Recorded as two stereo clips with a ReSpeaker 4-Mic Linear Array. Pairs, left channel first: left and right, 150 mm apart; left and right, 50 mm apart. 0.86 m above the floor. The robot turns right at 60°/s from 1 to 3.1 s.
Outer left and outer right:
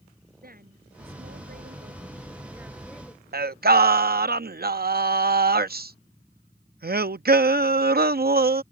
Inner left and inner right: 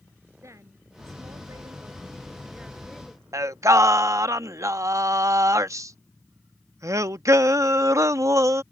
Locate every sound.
0.4 s a woman speaking: 105° right; by 3.2 s 20° left
3.3 s singing: 85° right